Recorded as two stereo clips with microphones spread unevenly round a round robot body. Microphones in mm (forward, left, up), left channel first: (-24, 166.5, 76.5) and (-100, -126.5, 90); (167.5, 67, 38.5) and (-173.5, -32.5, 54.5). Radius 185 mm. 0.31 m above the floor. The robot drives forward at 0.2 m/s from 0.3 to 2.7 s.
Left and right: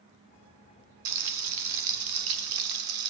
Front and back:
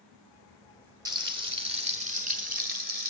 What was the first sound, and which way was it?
Frying, 85° right.